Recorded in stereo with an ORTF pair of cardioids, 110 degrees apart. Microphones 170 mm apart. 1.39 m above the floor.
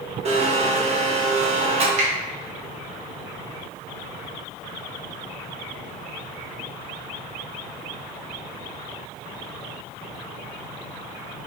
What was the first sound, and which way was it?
A blender, 40° right.